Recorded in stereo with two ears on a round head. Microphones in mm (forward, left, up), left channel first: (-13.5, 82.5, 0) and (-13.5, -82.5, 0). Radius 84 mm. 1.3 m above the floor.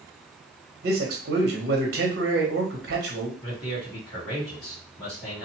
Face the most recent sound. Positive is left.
turn(degrees=25)  # may be behind; listen again after turning